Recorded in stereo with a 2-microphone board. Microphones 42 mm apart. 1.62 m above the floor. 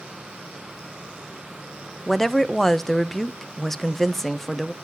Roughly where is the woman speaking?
Centre.